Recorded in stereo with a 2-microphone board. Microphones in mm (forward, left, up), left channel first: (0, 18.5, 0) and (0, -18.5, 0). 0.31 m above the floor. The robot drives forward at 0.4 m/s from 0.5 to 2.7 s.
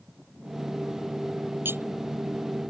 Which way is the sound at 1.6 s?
75° right (ahead or behind).